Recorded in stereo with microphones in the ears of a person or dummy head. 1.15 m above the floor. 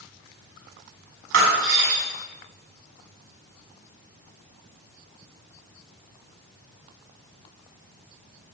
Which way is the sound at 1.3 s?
70° right (ahead or behind).